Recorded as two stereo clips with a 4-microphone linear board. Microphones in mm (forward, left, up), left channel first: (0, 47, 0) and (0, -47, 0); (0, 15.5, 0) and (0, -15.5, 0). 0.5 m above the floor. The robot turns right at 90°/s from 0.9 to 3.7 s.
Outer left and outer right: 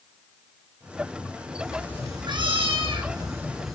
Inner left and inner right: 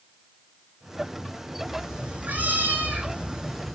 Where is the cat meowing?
175° left, 7 m; by 3.8 s 5° left, 7 m.